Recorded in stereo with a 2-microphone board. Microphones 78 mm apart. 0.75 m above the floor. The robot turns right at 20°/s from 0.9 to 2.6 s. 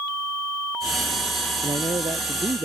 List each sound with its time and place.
1.6 s a man speaking: 80° right; by 2.6 s 60° right (ahead or behind)